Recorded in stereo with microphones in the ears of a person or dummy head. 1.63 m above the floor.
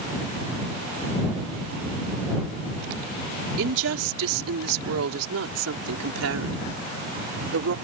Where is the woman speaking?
70° right (ahead or behind); by 7.8 s 80° right.